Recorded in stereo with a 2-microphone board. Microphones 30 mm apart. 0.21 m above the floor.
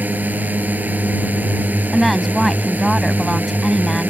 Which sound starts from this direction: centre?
A woman speaking, at 1.9 s.